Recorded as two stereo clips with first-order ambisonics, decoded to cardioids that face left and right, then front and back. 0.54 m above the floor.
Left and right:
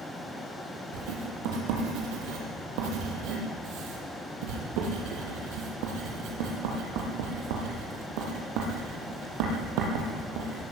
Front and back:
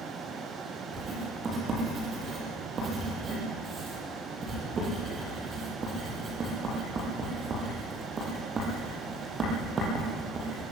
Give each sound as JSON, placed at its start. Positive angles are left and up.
{"t": 0.9, "sound": "writing", "azimuth_deg": -110, "distance_m": 6.0}